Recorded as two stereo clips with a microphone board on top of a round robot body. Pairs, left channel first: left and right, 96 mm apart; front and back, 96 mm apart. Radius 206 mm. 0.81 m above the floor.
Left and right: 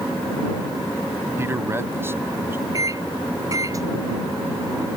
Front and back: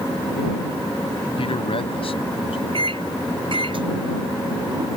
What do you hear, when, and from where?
1.4 s a man speaking: 25° right; by 2.6 s 20° right
2.7 s a microwave: 145° right